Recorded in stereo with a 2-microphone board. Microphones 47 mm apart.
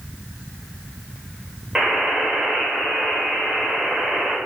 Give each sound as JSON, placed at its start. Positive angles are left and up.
{"t": 1.8, "sound": "a buzzer", "side_deg": -10, "distance_m": 1.2}